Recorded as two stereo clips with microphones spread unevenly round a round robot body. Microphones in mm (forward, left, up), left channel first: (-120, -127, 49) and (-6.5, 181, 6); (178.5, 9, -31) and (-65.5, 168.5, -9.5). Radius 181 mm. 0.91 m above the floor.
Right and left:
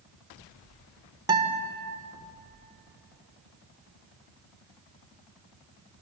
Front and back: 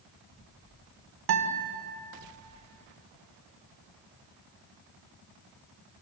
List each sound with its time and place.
1.3 s a guitar: 150° left, 2 m